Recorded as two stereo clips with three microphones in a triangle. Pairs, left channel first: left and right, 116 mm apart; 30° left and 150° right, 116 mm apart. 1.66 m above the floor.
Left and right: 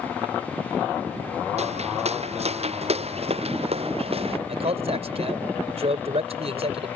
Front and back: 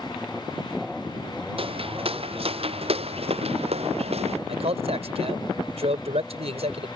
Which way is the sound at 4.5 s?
120° right.